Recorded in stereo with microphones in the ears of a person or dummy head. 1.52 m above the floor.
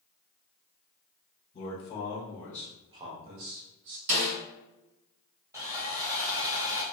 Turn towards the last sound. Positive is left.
turn(degrees=-15)  # may be behind; listen again after turning